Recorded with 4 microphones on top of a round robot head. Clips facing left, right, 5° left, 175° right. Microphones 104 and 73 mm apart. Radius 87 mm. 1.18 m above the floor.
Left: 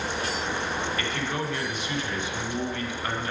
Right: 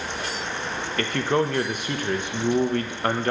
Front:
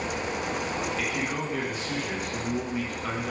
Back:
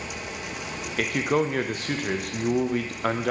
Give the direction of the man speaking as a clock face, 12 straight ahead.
5 o'clock.